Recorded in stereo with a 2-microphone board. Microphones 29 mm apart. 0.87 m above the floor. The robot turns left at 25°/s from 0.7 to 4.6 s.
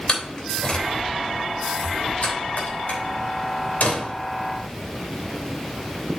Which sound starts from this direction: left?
A door slam, at 0.1 s.